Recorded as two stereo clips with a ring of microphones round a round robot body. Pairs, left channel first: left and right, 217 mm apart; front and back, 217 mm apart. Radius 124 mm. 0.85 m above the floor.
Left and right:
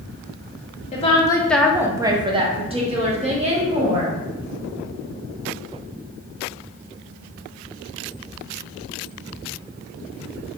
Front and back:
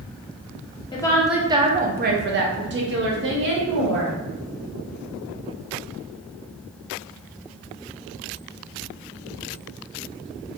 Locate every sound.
0.9 s a woman speaking: 55° left, 0.5 m; by 4.2 s 150° right, 1.8 m